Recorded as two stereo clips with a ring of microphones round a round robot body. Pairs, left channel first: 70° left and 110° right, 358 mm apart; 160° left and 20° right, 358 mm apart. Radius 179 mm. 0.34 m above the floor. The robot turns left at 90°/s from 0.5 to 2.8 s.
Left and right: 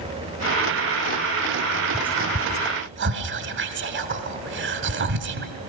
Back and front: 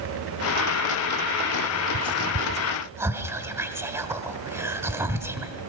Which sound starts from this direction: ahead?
Whispering, at 1.9 s.